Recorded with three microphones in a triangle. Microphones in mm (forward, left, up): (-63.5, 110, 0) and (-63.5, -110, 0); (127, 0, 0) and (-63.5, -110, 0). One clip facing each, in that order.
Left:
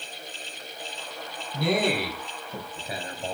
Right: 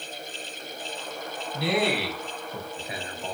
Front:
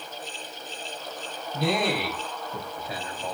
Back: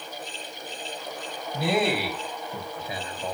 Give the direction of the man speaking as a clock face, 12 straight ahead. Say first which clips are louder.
Left 1 dB, back 1 dB; 8 o'clock.